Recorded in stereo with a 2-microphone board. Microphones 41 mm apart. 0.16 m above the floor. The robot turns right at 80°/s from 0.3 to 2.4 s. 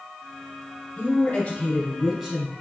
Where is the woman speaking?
100° left, 1.5 m; by 2.5 s 145° right, 1.5 m.